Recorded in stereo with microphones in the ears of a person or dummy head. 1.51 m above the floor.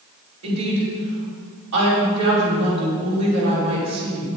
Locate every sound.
0.4 s a woman speaking: 70° right (ahead or behind), 5 m